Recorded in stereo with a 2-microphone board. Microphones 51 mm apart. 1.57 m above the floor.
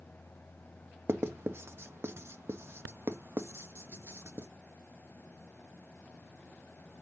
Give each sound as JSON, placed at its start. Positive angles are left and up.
{"t": 1.1, "sound": "writing", "side_deg": -55, "distance_m": 0.5}